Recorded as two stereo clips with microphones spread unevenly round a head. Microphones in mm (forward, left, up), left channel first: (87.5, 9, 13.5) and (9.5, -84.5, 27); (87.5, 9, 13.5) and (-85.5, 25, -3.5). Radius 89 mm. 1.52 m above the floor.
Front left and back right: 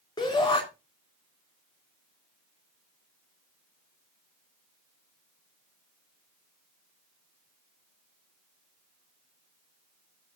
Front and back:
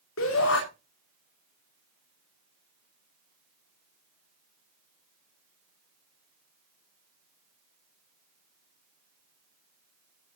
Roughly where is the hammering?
No hammering in this recording.